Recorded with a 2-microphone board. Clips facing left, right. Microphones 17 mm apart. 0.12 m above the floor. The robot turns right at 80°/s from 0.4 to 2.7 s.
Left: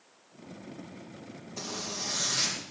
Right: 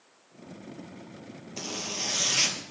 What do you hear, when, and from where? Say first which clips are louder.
1.6 s a zipper: right 3 dB; 145° right, 2 m; by 2.6 s 60° right, 2 m